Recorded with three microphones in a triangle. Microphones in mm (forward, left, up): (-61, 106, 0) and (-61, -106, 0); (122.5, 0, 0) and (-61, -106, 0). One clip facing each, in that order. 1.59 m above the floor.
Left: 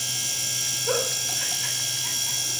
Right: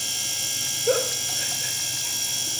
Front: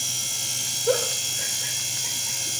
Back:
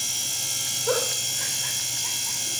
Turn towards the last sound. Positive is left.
turn(degrees=-40)